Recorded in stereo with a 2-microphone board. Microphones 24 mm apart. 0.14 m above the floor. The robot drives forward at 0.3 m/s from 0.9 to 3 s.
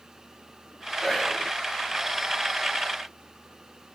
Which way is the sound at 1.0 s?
25° left (ahead or behind).